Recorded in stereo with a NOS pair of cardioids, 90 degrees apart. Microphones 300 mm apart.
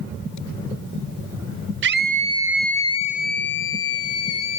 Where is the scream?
40° right, 0.7 m; by 4.6 s 55° left, 1.3 m.